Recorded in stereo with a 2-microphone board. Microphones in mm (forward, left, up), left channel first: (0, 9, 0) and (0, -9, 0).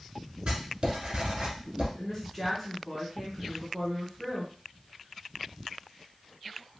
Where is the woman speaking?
10° left (ahead or behind), 1.4 m.